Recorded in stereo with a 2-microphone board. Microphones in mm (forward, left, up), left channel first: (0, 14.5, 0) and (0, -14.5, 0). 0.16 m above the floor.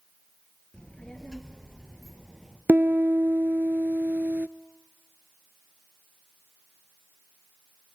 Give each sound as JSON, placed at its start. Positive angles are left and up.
{"t": 0.7, "sound": "a child speaking", "side_deg": 30, "distance_m": 2.5}
{"t": 2.7, "sound": "a piano", "side_deg": -70, "distance_m": 0.5}